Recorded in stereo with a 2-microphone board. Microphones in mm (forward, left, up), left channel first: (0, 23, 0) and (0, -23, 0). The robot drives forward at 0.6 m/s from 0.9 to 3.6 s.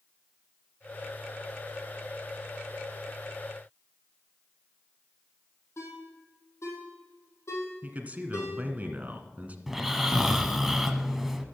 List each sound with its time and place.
5.8 s a ringtone: 80° left, 4 m
7.8 s a man speaking: 35° right (ahead or behind), 1.6 m
9.7 s snoring: 5° right (ahead or behind), 1.0 m